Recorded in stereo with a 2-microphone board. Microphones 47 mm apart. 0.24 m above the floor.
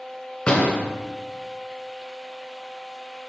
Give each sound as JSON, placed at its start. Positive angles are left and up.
{"t": 0.5, "sound": "a door slam", "side_deg": 20, "distance_m": 2.5}